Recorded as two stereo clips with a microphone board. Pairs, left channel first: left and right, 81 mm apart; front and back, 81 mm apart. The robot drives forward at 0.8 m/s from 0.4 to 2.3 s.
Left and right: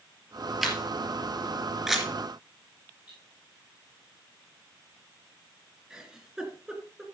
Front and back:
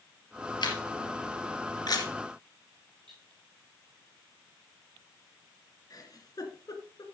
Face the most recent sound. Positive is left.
turn(degrees=-10)